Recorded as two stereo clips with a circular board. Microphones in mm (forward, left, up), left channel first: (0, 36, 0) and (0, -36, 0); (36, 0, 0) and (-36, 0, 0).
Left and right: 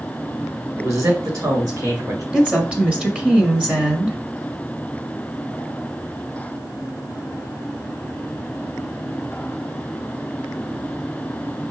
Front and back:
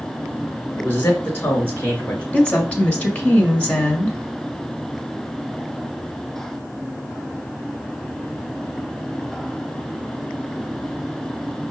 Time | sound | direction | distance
0.8 | a man speaking | 60° right | 2.5 m
2.3 | a woman speaking | 40° right | 1.7 m